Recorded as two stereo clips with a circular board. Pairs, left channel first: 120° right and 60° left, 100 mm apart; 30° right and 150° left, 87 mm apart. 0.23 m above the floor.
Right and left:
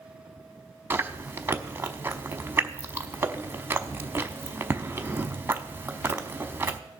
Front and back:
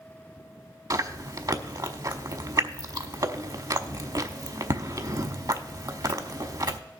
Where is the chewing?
120° left, 0.7 m.